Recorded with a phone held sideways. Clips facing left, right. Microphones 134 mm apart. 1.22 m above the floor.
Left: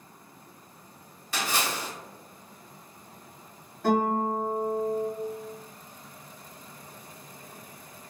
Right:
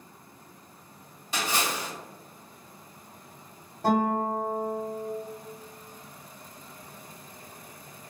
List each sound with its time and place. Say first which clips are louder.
1.3 s a splash: right 1 dB; 20° right (ahead or behind), 1.7 m
3.8 s a guitar: even; 40° right (ahead or behind), 1.2 m